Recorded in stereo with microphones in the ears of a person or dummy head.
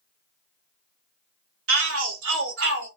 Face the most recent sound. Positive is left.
turn(degrees=-60)  # may be behind; listen again after turning